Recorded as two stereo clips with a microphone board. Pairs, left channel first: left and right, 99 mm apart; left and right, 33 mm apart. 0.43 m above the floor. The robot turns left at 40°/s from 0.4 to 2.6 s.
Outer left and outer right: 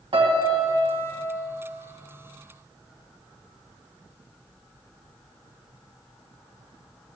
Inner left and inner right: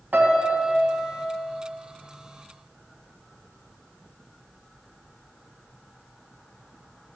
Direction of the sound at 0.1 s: 120° right.